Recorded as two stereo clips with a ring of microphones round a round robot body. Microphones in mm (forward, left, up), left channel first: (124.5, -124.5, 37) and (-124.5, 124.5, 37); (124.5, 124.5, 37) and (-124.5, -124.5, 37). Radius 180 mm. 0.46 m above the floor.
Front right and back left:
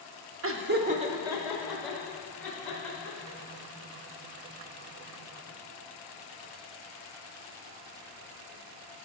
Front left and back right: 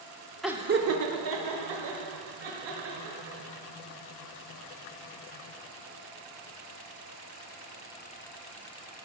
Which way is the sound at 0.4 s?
135° left.